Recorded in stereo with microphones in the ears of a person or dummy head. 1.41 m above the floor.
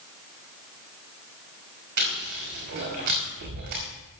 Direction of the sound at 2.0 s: 60° right (ahead or behind).